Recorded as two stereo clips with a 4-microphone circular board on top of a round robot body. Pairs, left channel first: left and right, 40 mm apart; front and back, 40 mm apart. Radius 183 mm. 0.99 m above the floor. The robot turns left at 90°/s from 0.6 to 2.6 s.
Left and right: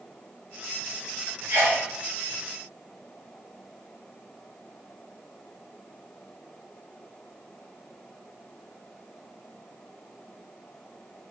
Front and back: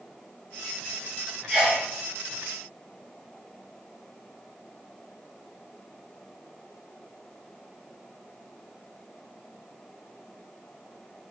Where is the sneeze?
110° right, 1.8 m; by 1.9 s 140° right, 1.8 m.